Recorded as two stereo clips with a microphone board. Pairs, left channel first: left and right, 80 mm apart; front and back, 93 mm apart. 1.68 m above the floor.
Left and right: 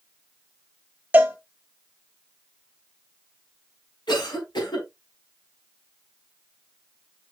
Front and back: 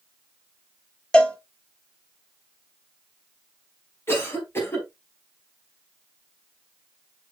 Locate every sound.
1.1 s a cowbell: 60° right, 1.0 m
4.1 s a cough: 65° left, 4 m